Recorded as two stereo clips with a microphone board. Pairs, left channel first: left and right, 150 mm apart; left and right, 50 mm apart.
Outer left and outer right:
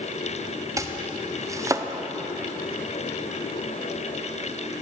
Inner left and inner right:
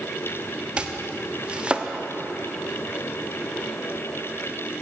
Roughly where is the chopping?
Right.